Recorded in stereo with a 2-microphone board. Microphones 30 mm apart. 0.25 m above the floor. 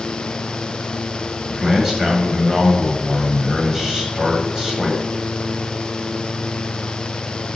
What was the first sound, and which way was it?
A man speaking, 20° right (ahead or behind).